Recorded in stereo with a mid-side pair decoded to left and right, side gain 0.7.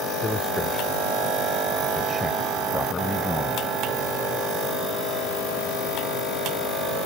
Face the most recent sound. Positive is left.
turn(degrees=10)